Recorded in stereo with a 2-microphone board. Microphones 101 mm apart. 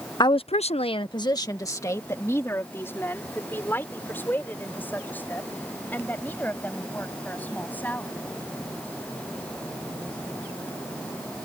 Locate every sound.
0.2 s a woman speaking: 40° left (ahead or behind); by 8.1 s 15° left (ahead or behind)